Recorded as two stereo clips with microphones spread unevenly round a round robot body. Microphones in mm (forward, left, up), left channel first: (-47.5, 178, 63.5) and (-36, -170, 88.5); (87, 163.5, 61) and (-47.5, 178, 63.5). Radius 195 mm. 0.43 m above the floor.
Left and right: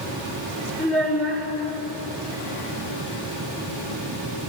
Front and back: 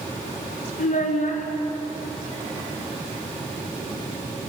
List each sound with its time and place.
0.8 s a child speaking: 20° left, 4 m